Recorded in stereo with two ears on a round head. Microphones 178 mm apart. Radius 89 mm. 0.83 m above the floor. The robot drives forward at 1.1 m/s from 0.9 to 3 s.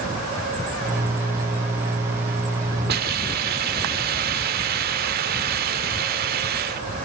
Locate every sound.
2.9 s a hiss: 55° right (ahead or behind), 1.6 m; by 6.9 s 50° right (ahead or behind), 1.7 m